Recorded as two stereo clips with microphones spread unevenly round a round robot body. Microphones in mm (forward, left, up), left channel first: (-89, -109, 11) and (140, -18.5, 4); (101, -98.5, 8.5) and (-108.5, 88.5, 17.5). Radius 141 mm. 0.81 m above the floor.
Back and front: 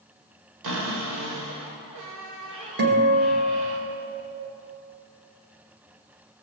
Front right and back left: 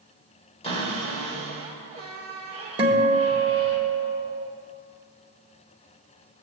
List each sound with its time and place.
0.6 s a cupboard door: 30° left, 2 m
2.8 s a guitar: 65° left, 1.4 m